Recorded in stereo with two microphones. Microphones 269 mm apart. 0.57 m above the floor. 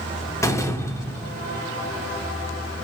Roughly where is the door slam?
Centre.